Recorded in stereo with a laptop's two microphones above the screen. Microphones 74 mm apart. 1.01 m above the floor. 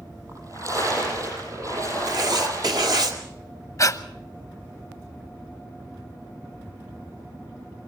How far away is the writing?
About 2 m.